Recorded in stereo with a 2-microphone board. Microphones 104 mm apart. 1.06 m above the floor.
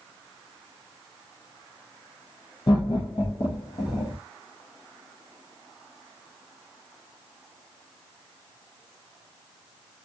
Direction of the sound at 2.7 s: 50° left (ahead or behind).